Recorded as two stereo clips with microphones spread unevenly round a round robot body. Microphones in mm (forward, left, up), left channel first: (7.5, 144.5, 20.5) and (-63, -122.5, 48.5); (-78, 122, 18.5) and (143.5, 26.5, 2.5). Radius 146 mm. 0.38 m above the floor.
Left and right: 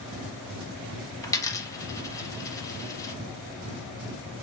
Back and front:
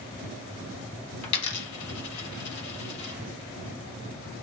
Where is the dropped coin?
155° left, 1.1 m.